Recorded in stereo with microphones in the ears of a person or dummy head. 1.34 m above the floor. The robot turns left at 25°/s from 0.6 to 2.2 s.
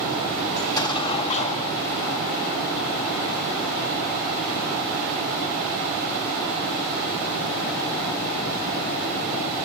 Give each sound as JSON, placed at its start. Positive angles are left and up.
{"t": 0.6, "sound": "an explosion", "azimuth_deg": 160, "distance_m": 0.9}